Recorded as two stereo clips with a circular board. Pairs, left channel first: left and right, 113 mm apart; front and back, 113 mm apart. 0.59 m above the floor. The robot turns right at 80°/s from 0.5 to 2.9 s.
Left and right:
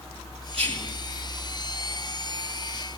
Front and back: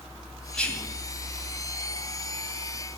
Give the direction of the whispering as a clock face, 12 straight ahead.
3 o'clock.